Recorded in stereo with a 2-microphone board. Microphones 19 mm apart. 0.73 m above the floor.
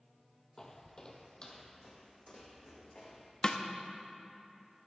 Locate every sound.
0.6 s footsteps: 20° left (ahead or behind), 0.9 m; by 3.3 s 50° left (ahead or behind), 2 m
3.4 s a snare drum: 45° left (ahead or behind), 0.6 m